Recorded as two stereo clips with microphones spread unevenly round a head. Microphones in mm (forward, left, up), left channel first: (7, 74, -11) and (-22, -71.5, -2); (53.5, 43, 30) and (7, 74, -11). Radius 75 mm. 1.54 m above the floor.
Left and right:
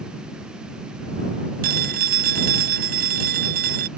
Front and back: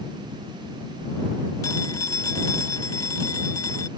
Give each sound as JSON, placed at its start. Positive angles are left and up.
{"t": 1.6, "sound": "a phone ringing", "azimuth_deg": -75}